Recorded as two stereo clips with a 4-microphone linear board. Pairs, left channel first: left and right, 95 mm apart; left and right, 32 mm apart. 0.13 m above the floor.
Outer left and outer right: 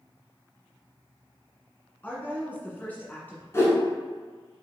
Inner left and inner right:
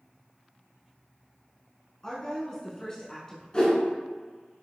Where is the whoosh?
30° left (ahead or behind), 1.3 m.